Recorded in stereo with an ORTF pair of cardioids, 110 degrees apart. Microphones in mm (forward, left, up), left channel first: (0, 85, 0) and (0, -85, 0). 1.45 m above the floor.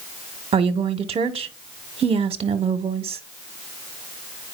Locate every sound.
0.5 s a woman speaking: 35° right, 0.9 m